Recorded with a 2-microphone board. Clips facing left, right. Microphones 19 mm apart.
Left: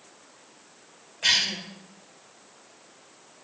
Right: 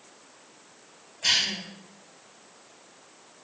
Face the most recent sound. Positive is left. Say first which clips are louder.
# left 1 dB
turn(degrees=30)  # may be behind; listen again after turning